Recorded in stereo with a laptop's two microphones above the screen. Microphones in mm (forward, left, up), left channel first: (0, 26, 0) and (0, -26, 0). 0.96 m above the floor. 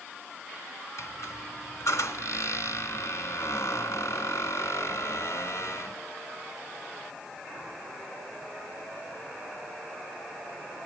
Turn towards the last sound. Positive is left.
turn(degrees=65)  # may be behind; listen again after turning